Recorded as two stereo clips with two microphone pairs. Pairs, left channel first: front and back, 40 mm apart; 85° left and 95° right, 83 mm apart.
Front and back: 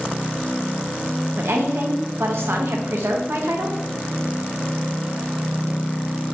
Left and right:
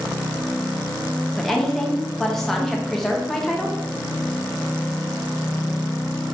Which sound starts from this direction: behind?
A woman speaking, at 1.4 s.